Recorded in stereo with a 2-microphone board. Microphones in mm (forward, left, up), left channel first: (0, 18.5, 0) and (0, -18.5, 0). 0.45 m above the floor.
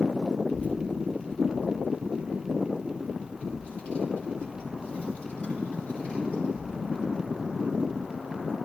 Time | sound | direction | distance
0.5 | a child speaking | 55° left (ahead or behind) | 4.5 m